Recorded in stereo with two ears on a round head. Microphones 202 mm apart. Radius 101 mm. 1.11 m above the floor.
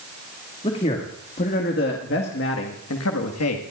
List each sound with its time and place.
0.6 s a man speaking: 30° left (ahead or behind), 2 m; by 3.6 s 80° left, 1.7 m